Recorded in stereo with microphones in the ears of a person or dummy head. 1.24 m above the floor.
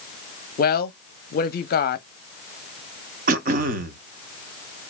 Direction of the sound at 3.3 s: 40° right (ahead or behind).